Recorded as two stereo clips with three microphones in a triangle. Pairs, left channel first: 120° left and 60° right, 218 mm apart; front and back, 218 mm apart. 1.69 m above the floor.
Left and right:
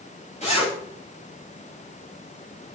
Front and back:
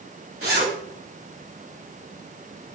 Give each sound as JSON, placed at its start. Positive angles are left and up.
{"t": 0.4, "sound": "a zipper", "azimuth_deg": 180, "distance_m": 5.0}